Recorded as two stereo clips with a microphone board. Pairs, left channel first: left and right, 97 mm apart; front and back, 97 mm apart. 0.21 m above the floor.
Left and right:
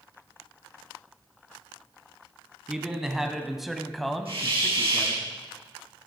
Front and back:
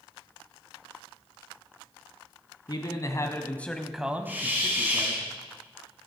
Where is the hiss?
110° right, 5.5 m.